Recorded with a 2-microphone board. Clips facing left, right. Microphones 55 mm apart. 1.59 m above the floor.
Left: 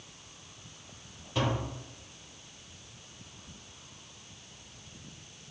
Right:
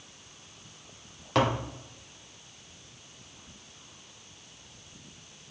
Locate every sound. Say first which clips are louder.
1.4 s tapping: right 5 dB; 70° right (ahead or behind), 0.8 m